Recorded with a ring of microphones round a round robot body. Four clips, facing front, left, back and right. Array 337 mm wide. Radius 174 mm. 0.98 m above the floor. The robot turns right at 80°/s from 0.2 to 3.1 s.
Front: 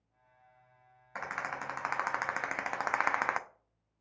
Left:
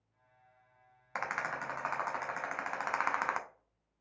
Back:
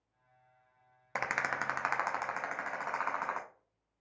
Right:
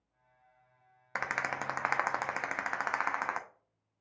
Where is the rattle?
155° right, 0.5 m; by 3.4 s 5° left, 0.5 m.